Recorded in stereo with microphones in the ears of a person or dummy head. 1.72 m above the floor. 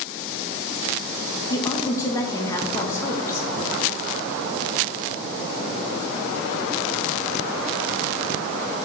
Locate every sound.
1.5 s a woman speaking: 20° left (ahead or behind), 0.8 m